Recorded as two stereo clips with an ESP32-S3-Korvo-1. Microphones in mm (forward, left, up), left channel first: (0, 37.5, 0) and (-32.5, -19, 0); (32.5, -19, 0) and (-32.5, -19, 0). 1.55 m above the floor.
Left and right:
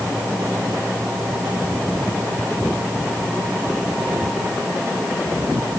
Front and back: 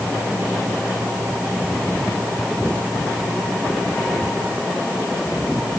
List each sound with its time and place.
Only background noise.